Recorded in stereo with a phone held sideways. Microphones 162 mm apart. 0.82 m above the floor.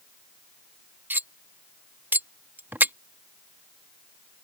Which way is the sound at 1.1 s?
10° right (ahead or behind).